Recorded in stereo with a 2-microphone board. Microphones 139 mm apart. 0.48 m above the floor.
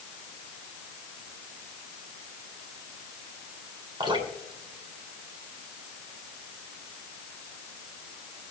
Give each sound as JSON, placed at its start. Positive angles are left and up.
{"t": 4.0, "sound": "dripping", "side_deg": -35, "distance_m": 2.5}